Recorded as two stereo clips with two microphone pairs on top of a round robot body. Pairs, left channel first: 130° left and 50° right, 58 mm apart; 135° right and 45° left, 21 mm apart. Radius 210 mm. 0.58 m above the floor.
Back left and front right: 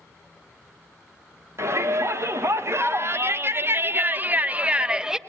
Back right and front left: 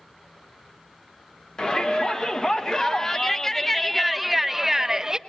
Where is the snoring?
No snoring in this recording.